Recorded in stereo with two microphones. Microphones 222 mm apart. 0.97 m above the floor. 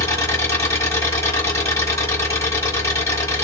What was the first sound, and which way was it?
An engine running, 10° left (ahead or behind).